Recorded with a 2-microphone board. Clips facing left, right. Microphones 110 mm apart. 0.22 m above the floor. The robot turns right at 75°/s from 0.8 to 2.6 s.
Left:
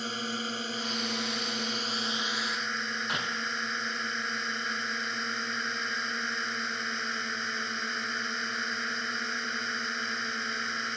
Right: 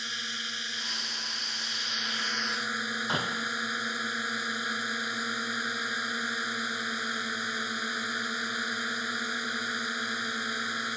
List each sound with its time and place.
0.0 s a drone: 50° left; by 11.0 s 175° right
3.1 s a door slam: 25° right (ahead or behind)